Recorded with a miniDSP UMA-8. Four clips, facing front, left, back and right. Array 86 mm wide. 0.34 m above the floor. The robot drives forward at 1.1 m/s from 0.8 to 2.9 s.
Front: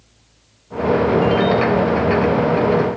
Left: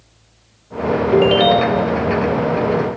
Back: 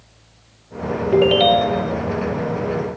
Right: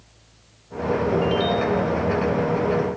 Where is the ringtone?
125° left; by 1.9 s 135° left.